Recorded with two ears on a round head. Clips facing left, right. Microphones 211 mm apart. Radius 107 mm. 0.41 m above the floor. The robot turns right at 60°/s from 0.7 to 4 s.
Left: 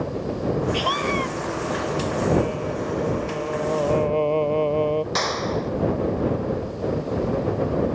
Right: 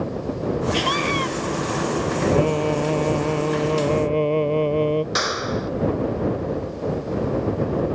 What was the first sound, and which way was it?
A scream, 155° right.